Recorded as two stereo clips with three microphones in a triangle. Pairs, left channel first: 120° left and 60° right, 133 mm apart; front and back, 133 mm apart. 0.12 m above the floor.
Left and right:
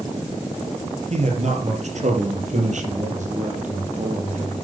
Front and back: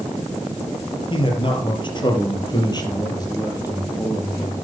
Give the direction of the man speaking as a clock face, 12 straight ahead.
1 o'clock.